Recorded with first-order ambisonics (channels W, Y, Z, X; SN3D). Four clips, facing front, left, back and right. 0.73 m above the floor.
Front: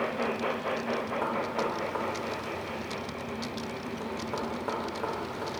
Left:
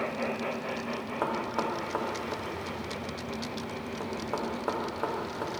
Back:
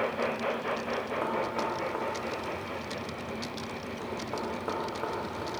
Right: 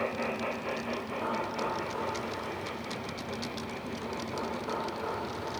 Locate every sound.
1.2 s knocking: 90° left, 0.9 m